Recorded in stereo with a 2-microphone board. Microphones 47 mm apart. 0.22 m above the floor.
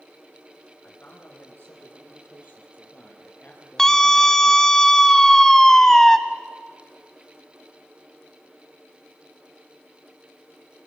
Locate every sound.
0.8 s a man speaking: 45° left (ahead or behind), 9 m; by 4.8 s 40° left (ahead or behind), 3.5 m
3.8 s a scream: 10° left (ahead or behind), 1.8 m